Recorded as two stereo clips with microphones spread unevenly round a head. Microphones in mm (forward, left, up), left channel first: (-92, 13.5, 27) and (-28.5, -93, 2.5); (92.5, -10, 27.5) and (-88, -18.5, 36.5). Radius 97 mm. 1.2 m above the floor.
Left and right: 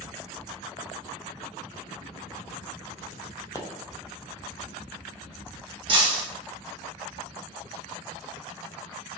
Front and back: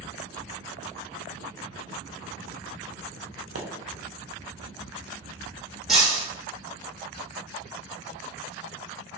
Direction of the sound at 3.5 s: 170° right.